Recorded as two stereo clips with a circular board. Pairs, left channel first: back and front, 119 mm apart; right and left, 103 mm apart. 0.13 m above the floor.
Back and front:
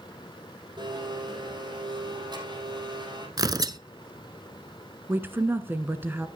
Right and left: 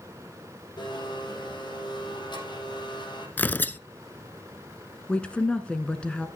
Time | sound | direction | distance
0.8 | a blender | 50° right | 5.5 m
3.4 | tearing paper | 30° right | 0.5 m
5.1 | a woman speaking | 30° right | 1.1 m